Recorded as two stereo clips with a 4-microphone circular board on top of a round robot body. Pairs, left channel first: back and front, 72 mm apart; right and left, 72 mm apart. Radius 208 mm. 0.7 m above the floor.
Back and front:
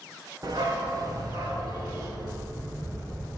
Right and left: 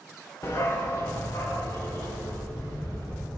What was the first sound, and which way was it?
A dog barking, 35° right.